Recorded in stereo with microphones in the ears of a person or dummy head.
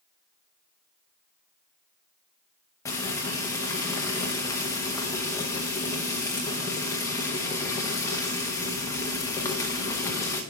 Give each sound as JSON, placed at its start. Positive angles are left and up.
{"t": 2.9, "sound": "frying", "side_deg": 15, "distance_m": 0.9}